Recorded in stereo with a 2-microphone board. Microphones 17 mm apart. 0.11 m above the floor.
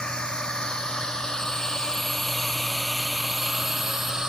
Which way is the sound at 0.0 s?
65° left (ahead or behind).